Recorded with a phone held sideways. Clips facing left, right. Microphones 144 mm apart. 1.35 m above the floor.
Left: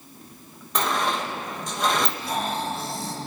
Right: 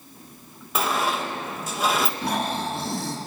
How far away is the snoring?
About 3 m.